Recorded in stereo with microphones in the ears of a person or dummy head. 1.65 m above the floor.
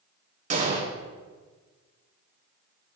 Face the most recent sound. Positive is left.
turn(degrees=-40)  # may be behind; listen again after turning